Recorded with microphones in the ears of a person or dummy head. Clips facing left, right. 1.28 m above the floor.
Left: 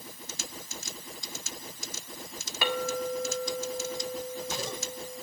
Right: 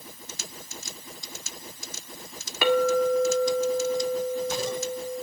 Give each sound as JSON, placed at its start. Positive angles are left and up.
{"t": 2.6, "sound": "a clink", "side_deg": -50, "distance_m": 1.8}